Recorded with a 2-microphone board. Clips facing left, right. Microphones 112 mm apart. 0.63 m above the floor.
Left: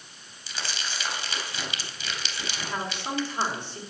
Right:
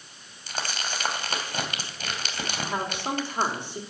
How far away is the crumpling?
About 2.5 m.